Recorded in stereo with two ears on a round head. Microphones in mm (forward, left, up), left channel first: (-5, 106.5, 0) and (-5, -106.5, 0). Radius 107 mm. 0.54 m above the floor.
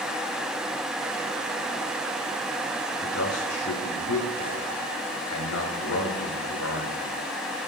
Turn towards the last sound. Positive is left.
turn(degrees=70)  # may be behind; listen again after turning